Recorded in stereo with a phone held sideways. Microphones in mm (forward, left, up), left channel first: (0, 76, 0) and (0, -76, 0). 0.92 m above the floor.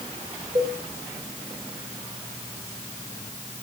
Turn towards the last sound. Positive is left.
turn(degrees=-40)  # may be behind; listen again after turning